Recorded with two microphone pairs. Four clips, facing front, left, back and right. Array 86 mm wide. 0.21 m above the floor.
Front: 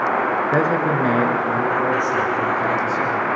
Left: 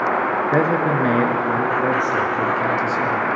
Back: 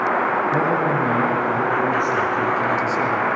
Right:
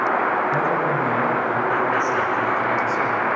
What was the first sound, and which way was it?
A man speaking, 60° left.